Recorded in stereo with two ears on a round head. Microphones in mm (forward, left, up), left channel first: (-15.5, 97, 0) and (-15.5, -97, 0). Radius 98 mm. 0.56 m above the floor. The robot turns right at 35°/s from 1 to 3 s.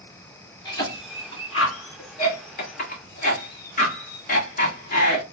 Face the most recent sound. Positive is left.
turn(degrees=40)  # may be behind; listen again after turning